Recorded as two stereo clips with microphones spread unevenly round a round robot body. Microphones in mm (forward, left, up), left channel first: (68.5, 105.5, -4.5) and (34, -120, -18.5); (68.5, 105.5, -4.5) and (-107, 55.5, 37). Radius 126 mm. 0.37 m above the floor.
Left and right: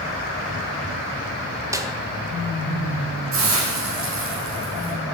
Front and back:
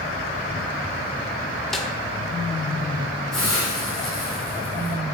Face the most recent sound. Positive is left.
turn(degrees=-70)